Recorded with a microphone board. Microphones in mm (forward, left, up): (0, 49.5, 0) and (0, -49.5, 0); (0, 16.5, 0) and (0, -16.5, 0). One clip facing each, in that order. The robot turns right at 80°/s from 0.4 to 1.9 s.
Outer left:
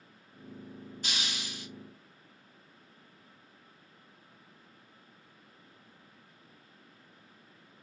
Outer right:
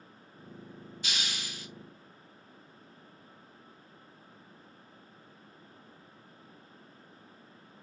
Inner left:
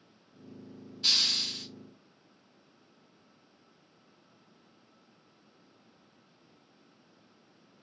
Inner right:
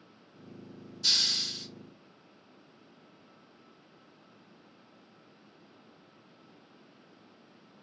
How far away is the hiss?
About 2.0 m.